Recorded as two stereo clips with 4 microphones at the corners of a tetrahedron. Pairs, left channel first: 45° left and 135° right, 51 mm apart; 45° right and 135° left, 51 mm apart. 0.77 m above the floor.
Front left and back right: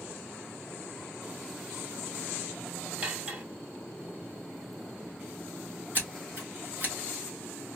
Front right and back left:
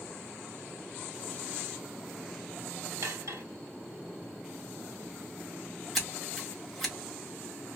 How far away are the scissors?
About 1.2 m.